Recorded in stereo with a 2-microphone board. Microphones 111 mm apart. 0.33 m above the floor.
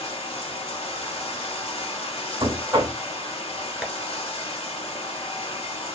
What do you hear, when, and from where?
0.0 s running water: 60° left (ahead or behind), 0.8 m
2.4 s knocking: 35° right (ahead or behind), 1.4 m
3.8 s tapping: 5° right (ahead or behind), 0.6 m